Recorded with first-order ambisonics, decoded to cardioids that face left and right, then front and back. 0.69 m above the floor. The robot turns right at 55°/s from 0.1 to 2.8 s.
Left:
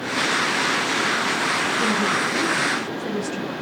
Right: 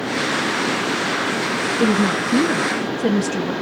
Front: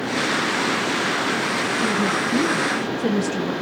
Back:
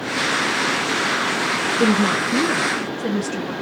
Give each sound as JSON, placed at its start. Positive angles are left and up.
{"t": 1.8, "sound": "a woman speaking", "azimuth_deg": -130, "distance_m": 0.6}